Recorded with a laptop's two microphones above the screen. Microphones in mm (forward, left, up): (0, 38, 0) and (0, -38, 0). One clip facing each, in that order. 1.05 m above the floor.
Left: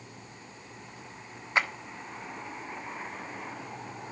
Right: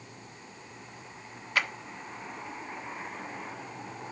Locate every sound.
1.6 s a clap: 25° left (ahead or behind), 1.3 m